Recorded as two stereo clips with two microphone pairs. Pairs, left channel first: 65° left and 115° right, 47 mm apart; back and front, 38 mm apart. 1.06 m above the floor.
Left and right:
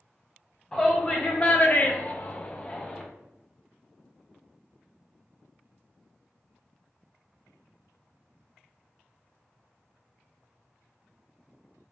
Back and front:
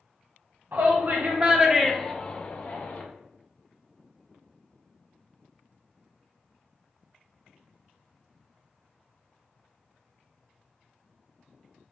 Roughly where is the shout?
Ahead.